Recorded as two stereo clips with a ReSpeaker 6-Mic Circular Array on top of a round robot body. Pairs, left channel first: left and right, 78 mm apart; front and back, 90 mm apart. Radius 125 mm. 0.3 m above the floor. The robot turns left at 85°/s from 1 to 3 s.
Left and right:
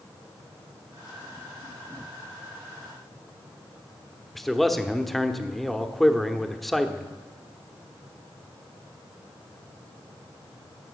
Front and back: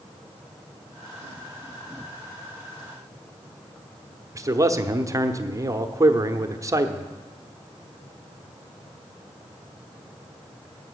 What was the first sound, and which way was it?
A man speaking, 175° left.